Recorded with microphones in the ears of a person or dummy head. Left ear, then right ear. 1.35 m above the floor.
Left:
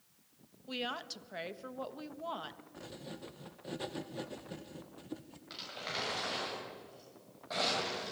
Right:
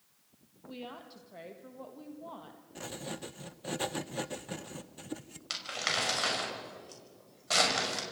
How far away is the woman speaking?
About 1.4 m.